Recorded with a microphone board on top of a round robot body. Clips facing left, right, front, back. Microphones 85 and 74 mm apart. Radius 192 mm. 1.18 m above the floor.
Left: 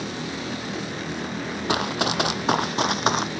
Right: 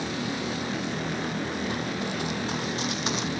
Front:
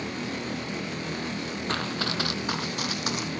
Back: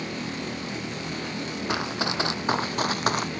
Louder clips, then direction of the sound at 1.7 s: Left 6 dB, back 2 dB; 100° left.